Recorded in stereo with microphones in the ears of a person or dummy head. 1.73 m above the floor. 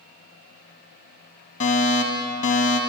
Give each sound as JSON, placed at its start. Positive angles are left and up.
{"t": 1.6, "sound": "a fire alarm", "side_deg": 30, "distance_m": 1.1}